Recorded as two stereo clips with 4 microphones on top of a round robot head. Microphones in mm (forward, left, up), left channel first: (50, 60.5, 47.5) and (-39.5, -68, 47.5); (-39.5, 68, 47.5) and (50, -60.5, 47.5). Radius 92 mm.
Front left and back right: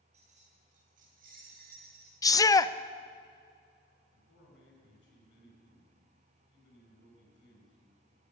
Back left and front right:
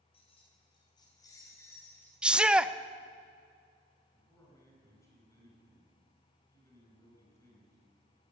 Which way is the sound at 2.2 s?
20° left.